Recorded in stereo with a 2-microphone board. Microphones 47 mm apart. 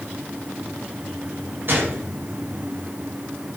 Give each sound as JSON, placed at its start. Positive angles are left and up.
{"t": 1.7, "sound": "a gunshot", "side_deg": -50, "distance_m": 6.5}